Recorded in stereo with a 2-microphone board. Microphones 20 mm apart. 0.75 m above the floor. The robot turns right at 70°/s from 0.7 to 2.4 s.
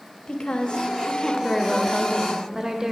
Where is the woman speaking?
95° left, 0.7 m; by 2.9 s 145° right, 0.7 m.